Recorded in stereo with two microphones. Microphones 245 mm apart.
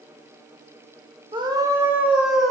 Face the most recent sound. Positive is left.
turn(degrees=0)  # may be behind; listen again after turning